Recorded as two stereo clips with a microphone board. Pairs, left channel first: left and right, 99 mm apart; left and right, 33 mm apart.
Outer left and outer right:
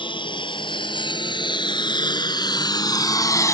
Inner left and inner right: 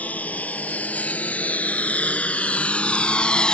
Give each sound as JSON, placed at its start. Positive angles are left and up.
{"t": 0.0, "sound": "a lawn mower", "side_deg": 55}